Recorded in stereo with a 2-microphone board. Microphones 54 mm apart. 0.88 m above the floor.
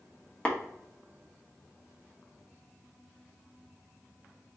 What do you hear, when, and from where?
0.5 s tapping: 20° left (ahead or behind), 1.1 m